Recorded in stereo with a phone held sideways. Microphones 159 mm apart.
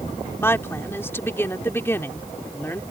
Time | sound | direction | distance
0.4 | a woman speaking | 15° left (ahead or behind) | ?